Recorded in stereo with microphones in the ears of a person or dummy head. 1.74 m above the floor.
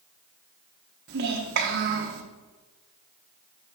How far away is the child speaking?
About 1.3 m.